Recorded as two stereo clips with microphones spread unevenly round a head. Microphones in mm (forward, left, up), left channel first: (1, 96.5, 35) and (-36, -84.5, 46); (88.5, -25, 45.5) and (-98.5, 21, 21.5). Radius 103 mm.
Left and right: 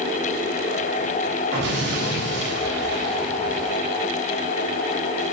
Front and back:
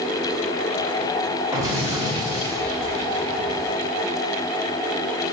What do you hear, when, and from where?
1.5 s an explosion: 120° right, 1.6 m